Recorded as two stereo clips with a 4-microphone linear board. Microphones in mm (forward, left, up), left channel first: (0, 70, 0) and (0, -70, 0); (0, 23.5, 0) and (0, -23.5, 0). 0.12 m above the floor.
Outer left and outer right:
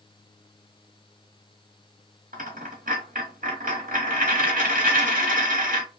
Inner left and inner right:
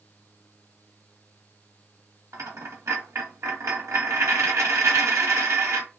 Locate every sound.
2.3 s a dropped coin: 80° right, 1.4 m